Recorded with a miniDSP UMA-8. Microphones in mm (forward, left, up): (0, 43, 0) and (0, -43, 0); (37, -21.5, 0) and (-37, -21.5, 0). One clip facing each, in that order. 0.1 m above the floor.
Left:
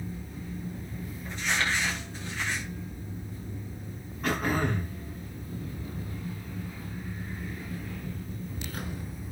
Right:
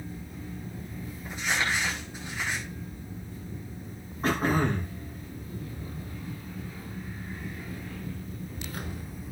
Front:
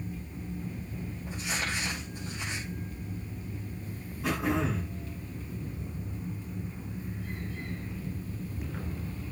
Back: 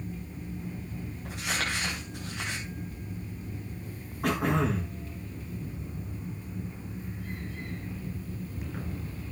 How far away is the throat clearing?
About 7 m.